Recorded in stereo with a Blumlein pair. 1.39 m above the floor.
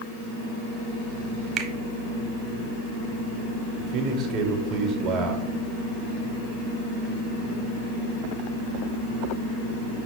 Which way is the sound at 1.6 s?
30° right.